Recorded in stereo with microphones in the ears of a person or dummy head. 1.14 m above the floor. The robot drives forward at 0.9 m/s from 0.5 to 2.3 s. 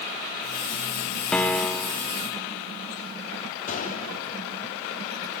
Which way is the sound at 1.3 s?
10° left (ahead or behind).